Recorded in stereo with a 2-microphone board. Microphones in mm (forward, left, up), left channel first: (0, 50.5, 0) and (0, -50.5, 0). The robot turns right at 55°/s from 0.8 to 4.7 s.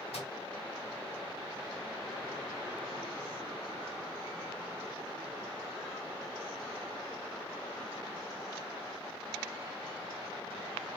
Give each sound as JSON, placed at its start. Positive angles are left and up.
{"t": 0.1, "sound": "a microwave", "side_deg": 80, "distance_m": 1.4}